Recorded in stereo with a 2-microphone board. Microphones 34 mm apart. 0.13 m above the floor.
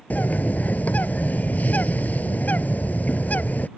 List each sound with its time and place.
0.1 s a bird: 55° left (ahead or behind)